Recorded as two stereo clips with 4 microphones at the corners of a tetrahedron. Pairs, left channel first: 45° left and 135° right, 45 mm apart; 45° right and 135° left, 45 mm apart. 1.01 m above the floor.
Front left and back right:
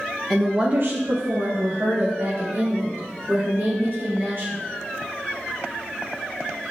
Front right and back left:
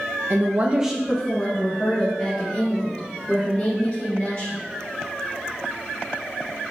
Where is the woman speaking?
125° left, 0.7 m; by 4.5 s 95° right, 5.5 m.